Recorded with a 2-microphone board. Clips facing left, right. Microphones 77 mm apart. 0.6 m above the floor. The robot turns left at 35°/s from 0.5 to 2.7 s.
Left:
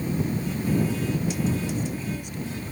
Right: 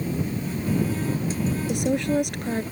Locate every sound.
1.7 s a woman speaking: 85° right; by 2.6 s 120° right